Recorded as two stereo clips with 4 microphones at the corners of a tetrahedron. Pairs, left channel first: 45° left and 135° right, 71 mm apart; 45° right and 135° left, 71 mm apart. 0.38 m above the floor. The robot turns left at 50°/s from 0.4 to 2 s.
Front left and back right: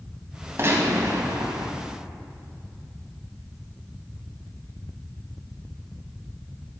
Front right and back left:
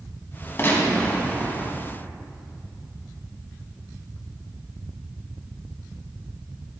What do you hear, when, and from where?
0.6 s a gunshot: 95° right, 3.5 m; by 1.7 s 150° right, 3.5 m